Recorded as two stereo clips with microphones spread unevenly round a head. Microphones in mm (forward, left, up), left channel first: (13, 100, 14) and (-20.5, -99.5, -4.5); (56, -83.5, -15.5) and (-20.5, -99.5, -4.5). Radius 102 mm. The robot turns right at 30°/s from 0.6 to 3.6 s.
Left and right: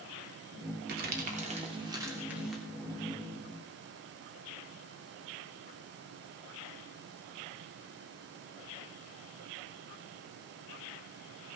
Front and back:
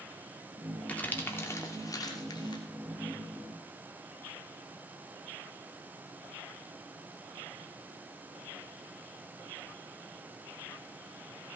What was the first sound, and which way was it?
Crumpling, 60° right.